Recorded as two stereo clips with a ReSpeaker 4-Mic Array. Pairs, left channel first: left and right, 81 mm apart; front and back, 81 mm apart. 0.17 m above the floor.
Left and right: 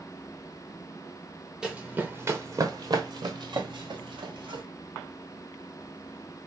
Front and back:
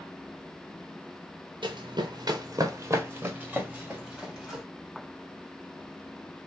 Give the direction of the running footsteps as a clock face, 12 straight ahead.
6 o'clock.